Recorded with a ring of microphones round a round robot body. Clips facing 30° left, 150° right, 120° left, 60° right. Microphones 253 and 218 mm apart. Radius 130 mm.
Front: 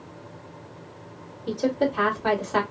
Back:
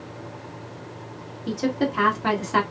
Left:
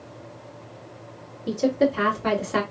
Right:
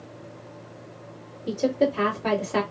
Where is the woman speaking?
165° right, 1.4 m.